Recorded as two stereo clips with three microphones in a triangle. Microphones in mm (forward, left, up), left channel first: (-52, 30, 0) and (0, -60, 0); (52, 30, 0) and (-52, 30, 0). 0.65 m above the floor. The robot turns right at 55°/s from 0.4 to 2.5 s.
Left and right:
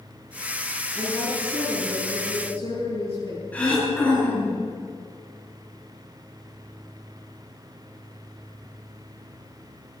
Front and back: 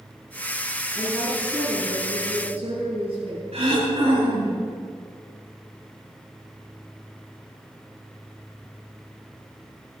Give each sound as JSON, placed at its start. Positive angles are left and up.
{"t": 0.9, "sound": "a woman speaking", "azimuth_deg": 65, "distance_m": 7.5}
{"t": 3.5, "sound": "throat clearing", "azimuth_deg": -165, "distance_m": 6.5}